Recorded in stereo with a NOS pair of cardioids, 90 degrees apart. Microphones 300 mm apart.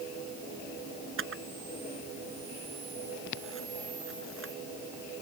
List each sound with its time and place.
1.2 s a camera shutter: 45° right